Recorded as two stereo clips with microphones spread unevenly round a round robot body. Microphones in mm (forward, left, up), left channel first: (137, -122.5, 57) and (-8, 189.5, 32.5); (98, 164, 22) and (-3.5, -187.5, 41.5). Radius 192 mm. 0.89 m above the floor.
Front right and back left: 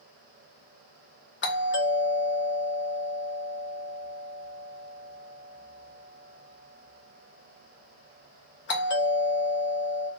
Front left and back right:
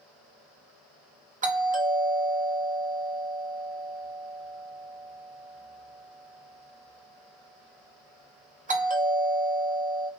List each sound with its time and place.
1.4 s a doorbell: 55° right, 1.1 m